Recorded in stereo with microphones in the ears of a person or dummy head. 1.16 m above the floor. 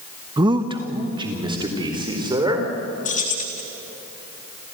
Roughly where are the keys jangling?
Left.